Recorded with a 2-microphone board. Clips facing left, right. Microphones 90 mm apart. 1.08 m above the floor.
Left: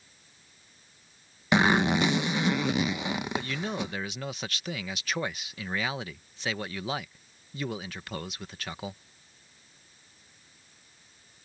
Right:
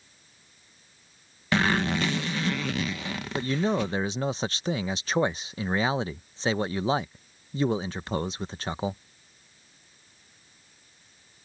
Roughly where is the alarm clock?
I don't hear an alarm clock.